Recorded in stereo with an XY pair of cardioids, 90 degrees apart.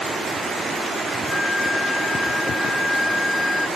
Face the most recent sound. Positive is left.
turn(degrees=15)